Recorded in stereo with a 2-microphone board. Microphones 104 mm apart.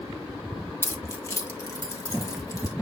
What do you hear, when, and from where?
0.8 s keys jangling: 25° left (ahead or behind), 0.6 m; by 2.7 s 30° left (ahead or behind), 1.8 m